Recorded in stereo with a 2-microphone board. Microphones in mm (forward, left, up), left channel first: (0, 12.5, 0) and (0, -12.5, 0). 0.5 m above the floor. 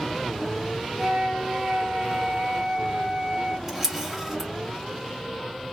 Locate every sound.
1.0 s a flute: 20° right (ahead or behind), 1.3 m
3.7 s a camera shutter: 10° right (ahead or behind), 1.3 m